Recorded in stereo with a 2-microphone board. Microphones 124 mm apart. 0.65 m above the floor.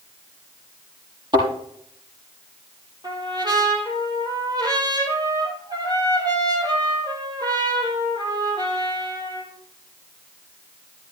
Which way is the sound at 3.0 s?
35° right (ahead or behind).